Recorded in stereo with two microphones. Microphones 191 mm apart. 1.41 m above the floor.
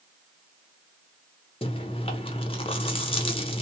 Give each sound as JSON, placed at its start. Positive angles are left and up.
{"t": 1.6, "sound": "chewing", "side_deg": 30, "distance_m": 0.6}